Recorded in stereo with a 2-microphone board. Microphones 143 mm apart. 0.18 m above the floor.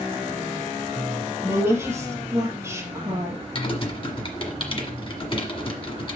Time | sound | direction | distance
1.4 | a woman speaking | 20° right (ahead or behind) | 3 m
3.5 | typing on a keyboard | 40° left (ahead or behind) | 1.4 m